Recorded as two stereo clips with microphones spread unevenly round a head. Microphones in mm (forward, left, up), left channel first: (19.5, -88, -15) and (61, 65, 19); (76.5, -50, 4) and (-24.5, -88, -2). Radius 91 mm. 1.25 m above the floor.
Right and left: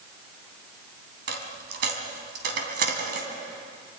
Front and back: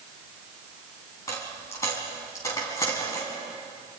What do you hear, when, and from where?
1.3 s a dropped coin: 90° left, 3 m